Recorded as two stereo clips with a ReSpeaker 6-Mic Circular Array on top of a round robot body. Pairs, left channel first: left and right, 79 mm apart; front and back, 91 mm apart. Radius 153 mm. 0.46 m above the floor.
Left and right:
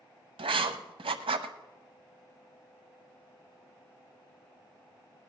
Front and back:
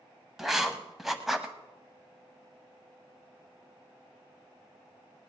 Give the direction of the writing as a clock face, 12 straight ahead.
3 o'clock.